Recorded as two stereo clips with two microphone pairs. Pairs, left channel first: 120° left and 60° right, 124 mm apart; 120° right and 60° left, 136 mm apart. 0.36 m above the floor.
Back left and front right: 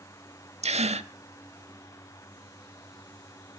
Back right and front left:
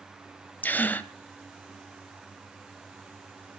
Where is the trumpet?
I don't hear a trumpet.